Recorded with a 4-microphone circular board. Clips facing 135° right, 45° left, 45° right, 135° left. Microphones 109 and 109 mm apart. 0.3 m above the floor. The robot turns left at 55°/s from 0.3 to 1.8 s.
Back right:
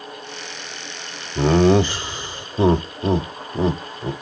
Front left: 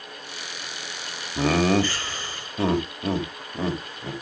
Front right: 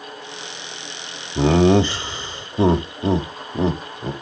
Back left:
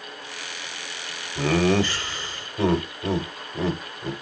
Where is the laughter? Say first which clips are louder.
Back right 6 dB, front right 6 dB; 60° right, 1.0 m; by 4.1 s 85° right, 1.0 m.